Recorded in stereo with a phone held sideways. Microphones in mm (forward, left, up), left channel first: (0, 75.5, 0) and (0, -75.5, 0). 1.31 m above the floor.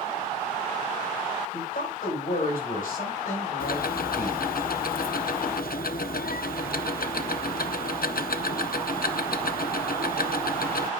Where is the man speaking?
80° left, 7 m.